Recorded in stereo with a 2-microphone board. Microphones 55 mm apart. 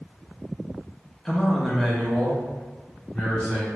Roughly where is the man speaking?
Centre.